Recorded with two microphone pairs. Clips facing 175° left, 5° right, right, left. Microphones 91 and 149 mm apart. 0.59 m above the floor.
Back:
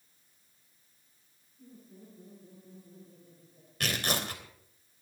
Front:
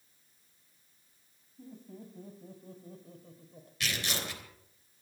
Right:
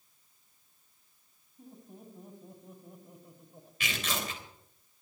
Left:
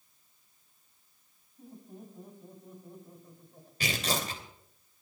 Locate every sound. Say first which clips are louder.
1.6 s laughter: front 5 dB, left 2 dB; straight ahead, 5 m; by 3.7 s 20° right, 3 m
3.8 s tearing paper: back 4 dB, left 4 dB; 140° left, 3 m